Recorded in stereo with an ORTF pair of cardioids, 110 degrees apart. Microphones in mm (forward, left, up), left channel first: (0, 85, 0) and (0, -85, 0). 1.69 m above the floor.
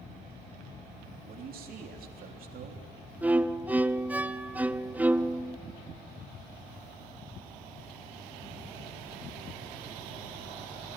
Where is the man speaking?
60° right, 3.5 m.